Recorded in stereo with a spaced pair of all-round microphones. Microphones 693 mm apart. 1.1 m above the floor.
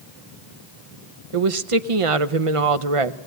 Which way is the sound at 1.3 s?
50° right (ahead or behind).